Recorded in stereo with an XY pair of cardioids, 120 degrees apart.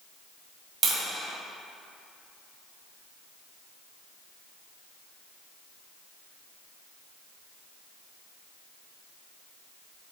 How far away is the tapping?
About 1.9 m.